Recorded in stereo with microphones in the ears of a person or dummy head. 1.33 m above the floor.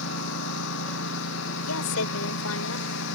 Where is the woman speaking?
80° left.